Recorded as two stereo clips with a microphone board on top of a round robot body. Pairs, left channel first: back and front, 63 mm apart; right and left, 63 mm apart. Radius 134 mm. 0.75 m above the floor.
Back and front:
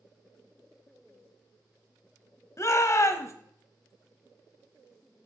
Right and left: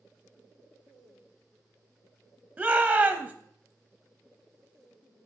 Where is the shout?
160° left, 0.9 m.